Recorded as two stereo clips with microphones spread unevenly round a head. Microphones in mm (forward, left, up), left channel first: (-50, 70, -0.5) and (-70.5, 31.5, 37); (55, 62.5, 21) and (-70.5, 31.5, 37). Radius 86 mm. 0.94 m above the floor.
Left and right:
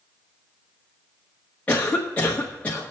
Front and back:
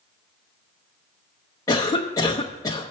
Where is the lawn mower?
No lawn mower in this recording.